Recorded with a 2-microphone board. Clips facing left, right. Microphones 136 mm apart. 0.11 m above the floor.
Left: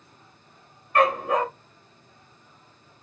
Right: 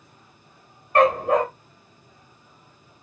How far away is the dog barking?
About 2 m.